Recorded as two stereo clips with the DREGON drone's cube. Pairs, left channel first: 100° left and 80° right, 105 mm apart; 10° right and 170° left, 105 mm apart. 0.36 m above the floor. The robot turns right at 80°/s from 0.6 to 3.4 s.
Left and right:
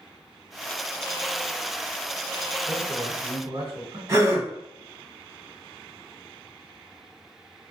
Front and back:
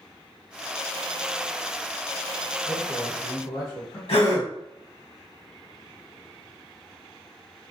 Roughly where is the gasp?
Ahead right.